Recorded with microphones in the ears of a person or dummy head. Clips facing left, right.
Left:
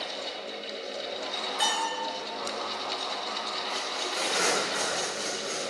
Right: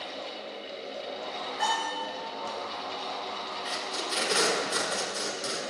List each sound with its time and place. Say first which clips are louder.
0.0 s a fan: left 1 dB; 10° left (ahead or behind), 1.2 m
1.6 s a bell: right 1 dB; 55° left (ahead or behind), 3.5 m
3.6 s tape being pulled: right 1 dB; 65° right (ahead or behind), 2.5 m